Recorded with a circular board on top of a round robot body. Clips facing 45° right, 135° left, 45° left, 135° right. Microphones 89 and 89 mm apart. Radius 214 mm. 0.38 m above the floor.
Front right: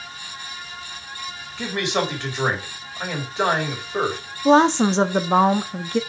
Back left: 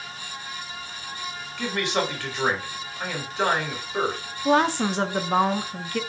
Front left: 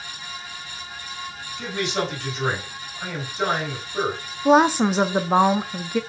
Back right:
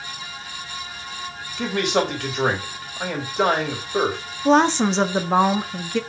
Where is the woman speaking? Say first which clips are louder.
Front right 6 dB, even; 25° right, 0.8 m.